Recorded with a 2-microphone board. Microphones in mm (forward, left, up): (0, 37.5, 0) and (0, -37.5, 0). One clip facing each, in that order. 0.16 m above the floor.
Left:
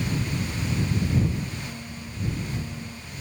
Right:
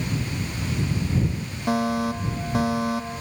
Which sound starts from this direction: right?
A fire alarm, at 1.7 s.